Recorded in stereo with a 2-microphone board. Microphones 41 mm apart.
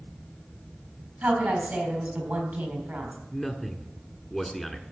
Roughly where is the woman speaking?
Right.